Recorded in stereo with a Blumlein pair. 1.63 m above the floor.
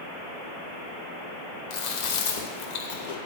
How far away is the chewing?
About 1.7 m.